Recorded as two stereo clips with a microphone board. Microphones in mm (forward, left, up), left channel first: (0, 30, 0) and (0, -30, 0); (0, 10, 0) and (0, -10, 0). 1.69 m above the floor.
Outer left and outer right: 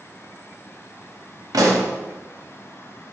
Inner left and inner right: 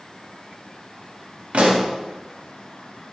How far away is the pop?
About 0.6 m.